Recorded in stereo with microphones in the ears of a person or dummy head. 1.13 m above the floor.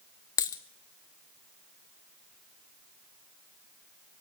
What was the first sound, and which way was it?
A dropped coin, 20° left (ahead or behind).